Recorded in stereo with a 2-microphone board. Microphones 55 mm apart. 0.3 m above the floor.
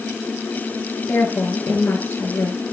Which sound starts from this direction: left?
A woman speaking, at 1.1 s.